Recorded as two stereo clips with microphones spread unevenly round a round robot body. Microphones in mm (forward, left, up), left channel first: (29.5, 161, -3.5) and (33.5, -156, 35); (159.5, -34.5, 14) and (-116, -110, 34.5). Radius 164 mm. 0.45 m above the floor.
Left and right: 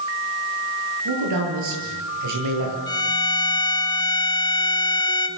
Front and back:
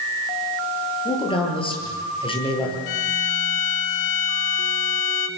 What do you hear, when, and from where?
1.1 s a man speaking: 55° right, 9.5 m
2.9 s a violin: 10° left, 1.6 m